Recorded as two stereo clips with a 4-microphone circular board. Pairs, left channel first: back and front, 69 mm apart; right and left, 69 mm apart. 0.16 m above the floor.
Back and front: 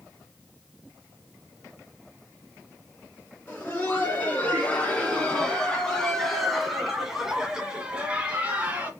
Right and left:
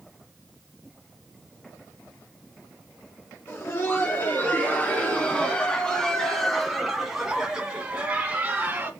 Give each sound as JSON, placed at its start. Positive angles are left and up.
{"t": 3.5, "sound": "laughter", "azimuth_deg": -130, "distance_m": 2.5}